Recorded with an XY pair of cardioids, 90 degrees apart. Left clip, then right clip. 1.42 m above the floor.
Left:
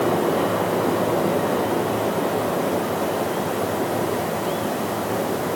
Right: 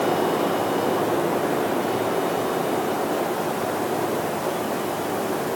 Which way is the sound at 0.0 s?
55° left.